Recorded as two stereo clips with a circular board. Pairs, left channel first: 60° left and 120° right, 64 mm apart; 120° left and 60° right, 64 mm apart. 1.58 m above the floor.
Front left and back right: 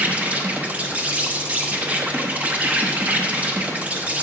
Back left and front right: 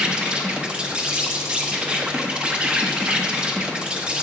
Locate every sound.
0.0 s an insect: 105° right, 0.8 m